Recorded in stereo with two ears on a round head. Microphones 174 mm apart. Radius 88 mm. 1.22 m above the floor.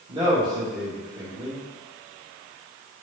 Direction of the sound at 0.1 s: 25° right (ahead or behind).